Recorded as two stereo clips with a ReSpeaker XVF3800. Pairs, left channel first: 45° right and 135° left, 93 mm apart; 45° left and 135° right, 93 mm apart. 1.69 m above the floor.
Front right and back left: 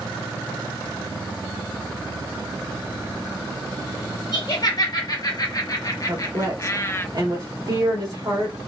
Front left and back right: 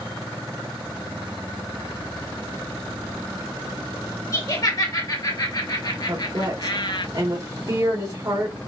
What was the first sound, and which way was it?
Laughter, 5° right.